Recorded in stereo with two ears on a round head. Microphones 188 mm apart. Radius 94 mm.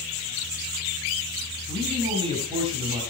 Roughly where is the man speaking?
Right.